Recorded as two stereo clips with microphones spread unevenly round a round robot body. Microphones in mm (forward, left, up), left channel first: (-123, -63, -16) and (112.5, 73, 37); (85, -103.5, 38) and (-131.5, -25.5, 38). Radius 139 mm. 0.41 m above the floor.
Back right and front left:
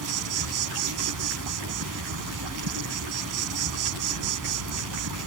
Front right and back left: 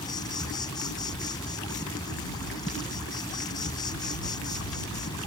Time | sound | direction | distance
0.0 | an insect | 55° left | ?